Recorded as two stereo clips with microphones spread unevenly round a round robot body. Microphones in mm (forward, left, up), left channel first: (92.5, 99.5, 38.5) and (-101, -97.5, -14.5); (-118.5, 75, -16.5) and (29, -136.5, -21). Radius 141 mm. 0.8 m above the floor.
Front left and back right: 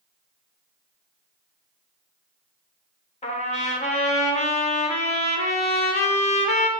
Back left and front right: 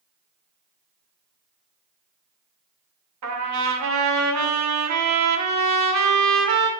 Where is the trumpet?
20° right, 1.2 m.